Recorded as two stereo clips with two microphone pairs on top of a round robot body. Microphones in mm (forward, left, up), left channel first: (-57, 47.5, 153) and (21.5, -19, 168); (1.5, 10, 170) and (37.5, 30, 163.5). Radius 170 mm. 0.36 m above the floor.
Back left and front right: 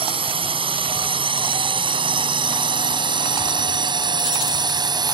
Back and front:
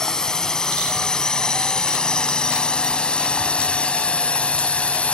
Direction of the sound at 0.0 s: 75° right.